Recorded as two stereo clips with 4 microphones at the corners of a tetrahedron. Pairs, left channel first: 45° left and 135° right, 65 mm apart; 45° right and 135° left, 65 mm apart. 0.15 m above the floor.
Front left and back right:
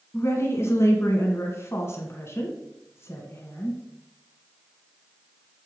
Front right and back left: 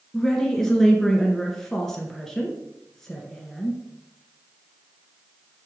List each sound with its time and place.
0.1 s a woman speaking: 35° left, 1.7 m